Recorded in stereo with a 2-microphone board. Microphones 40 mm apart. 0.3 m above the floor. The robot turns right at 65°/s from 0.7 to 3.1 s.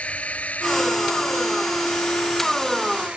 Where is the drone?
35° left (ahead or behind); by 3.2 s 30° right (ahead or behind).